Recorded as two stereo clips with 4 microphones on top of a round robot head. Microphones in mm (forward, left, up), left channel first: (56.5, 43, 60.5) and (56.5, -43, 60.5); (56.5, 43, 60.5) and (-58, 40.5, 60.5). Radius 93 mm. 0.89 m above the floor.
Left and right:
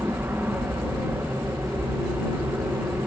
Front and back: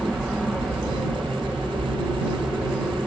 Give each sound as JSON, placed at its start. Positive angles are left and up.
{"t": 0.0, "sound": "an aircraft", "azimuth_deg": -95}